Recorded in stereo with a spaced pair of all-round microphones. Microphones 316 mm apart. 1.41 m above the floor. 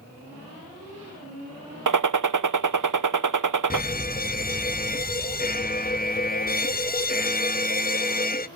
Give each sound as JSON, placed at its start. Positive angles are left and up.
{"t": 1.9, "sound": "a gunshot", "side_deg": -75, "distance_m": 0.6}
{"t": 3.7, "sound": "a fire alarm", "side_deg": 30, "distance_m": 0.7}